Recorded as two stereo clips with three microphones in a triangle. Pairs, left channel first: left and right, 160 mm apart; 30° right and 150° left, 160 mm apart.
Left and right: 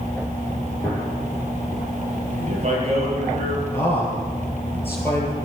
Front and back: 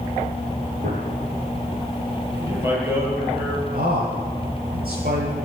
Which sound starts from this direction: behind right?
A man speaking, at 2.4 s.